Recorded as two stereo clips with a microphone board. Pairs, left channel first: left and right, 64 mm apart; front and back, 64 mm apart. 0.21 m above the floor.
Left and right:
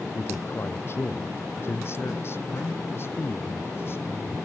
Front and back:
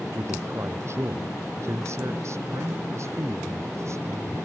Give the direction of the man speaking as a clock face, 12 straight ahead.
7 o'clock.